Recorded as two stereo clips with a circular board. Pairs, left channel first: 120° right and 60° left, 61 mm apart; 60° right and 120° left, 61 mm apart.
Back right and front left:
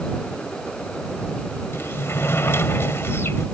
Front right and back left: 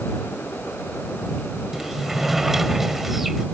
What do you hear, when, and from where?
1.7 s a sliding door: 155° right